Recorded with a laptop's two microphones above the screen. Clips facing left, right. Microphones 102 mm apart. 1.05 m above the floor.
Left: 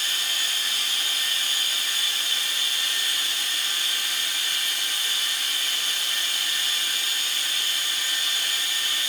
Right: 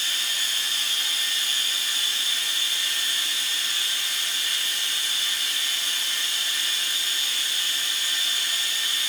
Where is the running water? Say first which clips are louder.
Left 1 dB; 65° left (ahead or behind), 2.5 m.